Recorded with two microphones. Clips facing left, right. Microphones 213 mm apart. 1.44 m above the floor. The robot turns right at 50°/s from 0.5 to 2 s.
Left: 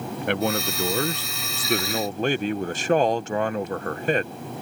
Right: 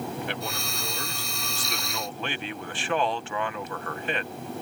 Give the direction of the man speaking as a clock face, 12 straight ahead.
10 o'clock.